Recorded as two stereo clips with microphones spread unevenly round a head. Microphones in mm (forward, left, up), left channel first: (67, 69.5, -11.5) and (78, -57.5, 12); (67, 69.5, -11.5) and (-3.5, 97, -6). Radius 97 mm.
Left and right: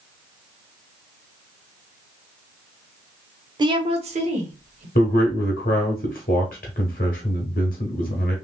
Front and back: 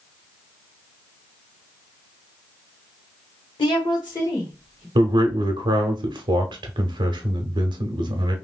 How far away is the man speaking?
About 0.8 m.